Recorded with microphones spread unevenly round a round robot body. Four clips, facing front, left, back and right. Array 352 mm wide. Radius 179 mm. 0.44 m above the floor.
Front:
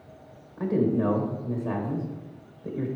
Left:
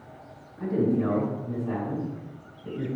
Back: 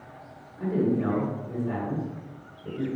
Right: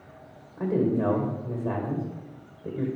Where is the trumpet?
No trumpet in this recording.